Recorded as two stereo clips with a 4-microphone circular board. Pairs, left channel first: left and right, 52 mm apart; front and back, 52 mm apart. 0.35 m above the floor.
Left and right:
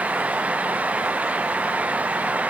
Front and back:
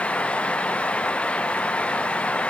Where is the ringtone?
I don't hear a ringtone.